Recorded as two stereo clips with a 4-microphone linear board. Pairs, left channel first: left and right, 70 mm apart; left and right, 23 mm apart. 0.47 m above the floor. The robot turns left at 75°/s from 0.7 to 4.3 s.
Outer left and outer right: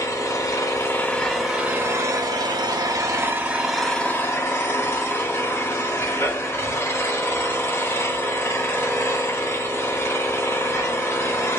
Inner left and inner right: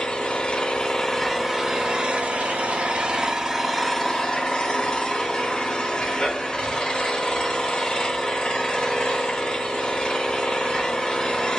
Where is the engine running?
55° left, 1.0 m; by 11.6 s 145° left, 1.0 m.